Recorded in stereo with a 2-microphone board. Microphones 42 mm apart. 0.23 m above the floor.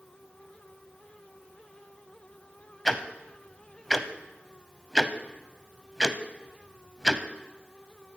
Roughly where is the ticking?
Centre.